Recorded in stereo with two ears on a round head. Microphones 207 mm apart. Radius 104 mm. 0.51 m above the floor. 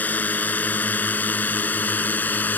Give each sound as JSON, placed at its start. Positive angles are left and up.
{"t": 0.0, "sound": "a drone", "side_deg": 5}